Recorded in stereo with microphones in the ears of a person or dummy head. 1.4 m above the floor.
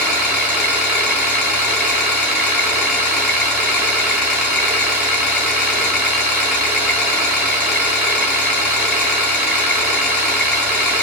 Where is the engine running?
10° right (ahead or behind), 4 m.